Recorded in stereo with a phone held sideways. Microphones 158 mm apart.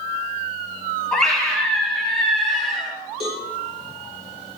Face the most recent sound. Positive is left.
turn(degrees=-45)  # may be behind; listen again after turning